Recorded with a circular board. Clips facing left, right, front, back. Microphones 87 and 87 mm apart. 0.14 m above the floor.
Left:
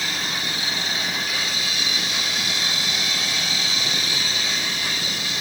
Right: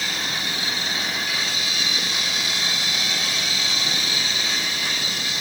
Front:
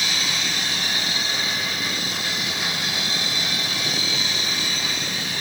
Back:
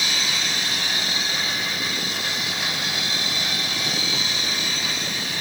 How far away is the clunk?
I don't hear a clunk.